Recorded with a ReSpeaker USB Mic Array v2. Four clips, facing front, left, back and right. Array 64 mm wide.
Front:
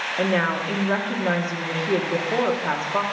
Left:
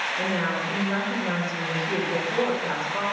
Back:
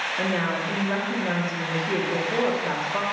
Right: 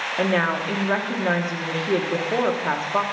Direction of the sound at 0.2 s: 65° right.